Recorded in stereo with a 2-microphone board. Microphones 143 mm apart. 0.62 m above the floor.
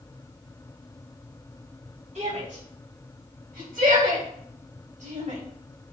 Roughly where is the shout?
Right.